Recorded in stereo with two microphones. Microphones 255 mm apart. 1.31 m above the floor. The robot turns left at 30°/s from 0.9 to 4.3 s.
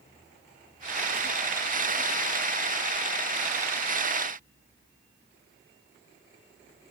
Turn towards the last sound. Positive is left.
No sound to turn to.